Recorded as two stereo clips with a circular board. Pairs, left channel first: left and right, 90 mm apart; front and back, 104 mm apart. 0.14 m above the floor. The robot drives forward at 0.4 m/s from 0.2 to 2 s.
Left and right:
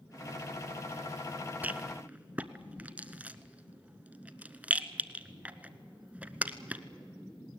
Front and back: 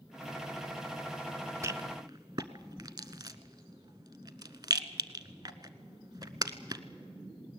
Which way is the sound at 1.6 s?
145° right.